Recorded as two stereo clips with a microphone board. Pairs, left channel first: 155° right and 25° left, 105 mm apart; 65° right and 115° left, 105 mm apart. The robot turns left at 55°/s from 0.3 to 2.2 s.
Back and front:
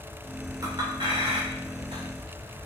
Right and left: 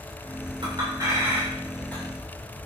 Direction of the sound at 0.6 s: 80° left.